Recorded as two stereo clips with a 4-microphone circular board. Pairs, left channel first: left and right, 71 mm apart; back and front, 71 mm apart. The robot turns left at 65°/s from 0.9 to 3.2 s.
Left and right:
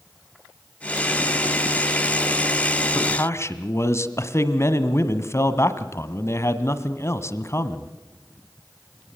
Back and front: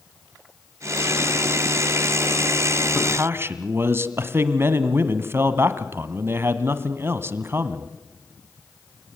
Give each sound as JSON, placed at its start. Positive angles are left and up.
{"t": 3.0, "sound": "a man speaking", "azimuth_deg": 65, "distance_m": 1.8}